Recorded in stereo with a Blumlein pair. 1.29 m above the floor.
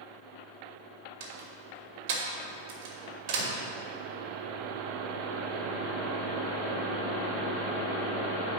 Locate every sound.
1.2 s a door slam: 45° right, 2 m